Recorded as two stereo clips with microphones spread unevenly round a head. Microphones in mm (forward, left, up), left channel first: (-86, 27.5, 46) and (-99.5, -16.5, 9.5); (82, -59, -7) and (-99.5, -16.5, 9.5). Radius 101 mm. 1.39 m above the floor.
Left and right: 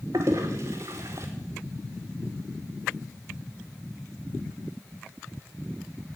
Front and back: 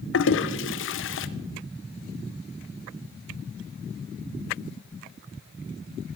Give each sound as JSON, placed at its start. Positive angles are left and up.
{"t": 0.1, "sound": "a toilet flushing", "azimuth_deg": -40, "distance_m": 0.6}